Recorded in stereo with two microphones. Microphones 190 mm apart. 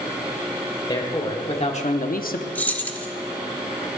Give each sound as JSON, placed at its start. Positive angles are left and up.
{"t": 0.9, "sound": "a man speaking", "side_deg": 25, "distance_m": 2.5}
{"t": 2.5, "sound": "keys jangling", "side_deg": 10, "distance_m": 0.8}